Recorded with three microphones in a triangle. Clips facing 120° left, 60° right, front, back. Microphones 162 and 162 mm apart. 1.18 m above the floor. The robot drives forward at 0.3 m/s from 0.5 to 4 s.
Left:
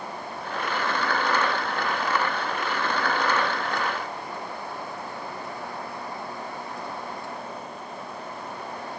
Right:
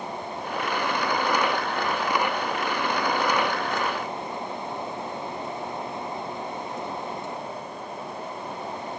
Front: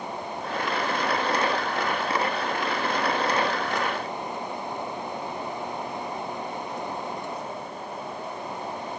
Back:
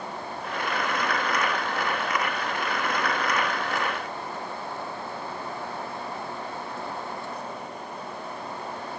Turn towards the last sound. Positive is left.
No sound to turn to.